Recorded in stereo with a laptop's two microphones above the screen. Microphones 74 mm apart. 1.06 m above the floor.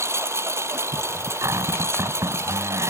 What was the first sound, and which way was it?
A lawn mower, 40° right (ahead or behind).